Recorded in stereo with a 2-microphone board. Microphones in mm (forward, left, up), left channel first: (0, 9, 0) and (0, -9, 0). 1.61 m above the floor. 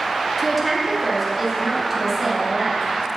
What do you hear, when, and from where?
0.4 s a woman speaking: centre (ahead or behind), 1.9 m; by 2.9 s 15° right (ahead or behind), 3 m